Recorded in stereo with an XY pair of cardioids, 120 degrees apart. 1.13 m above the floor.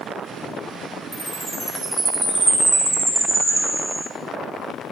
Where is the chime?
15° right, 4 m.